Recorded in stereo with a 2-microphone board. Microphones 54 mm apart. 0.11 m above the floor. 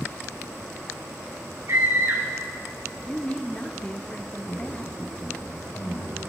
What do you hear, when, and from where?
1.7 s a scream: 60° right (ahead or behind), 7.5 m
3.1 s a woman speaking: 20° left (ahead or behind), 2 m
4.5 s a man speaking: 25° left (ahead or behind), 7 m